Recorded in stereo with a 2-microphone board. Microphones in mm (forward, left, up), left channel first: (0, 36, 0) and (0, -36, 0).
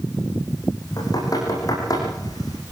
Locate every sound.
1.0 s knocking: 55° left (ahead or behind), 9.5 m